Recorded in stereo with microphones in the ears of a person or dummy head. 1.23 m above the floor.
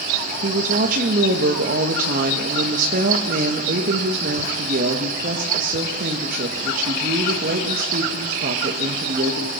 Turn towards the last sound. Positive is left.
turn(degrees=-40)  # may be behind; listen again after turning